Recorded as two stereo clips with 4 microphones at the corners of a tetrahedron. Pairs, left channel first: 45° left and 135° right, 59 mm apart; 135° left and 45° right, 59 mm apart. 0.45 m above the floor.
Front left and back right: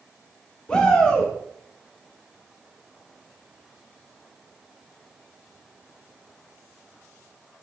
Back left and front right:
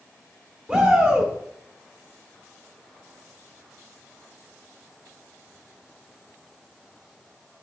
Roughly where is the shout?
Ahead.